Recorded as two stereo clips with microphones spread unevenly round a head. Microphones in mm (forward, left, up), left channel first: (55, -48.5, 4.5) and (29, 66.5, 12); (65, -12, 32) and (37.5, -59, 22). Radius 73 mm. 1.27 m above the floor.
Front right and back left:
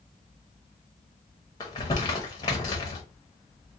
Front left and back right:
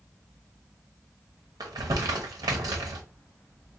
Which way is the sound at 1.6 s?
145° right.